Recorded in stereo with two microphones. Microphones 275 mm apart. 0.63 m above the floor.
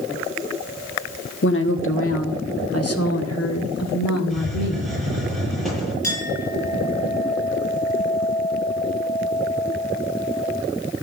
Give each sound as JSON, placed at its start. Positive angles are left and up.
{"t": 1.4, "sound": "a woman speaking", "side_deg": 40, "distance_m": 1.4}
{"t": 4.3, "sound": "a hiss", "side_deg": 0, "distance_m": 7.5}
{"t": 6.0, "sound": "a clink", "side_deg": -25, "distance_m": 7.5}